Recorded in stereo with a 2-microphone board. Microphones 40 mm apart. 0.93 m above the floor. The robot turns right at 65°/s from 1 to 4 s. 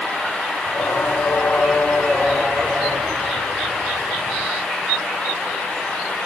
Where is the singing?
95° left, 4.5 m; by 4.5 s 70° right, 4.5 m.